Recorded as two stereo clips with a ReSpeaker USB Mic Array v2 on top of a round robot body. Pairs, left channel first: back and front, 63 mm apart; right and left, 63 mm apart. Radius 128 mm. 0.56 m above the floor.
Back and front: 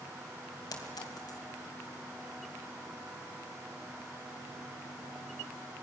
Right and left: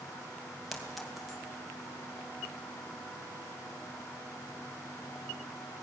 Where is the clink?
Straight behind, 3 m.